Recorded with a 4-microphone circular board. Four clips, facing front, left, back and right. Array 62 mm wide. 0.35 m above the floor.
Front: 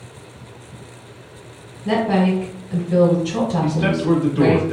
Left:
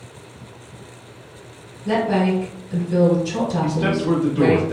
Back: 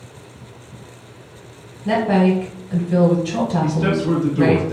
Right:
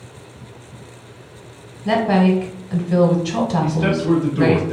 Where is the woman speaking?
95° right, 1.1 m.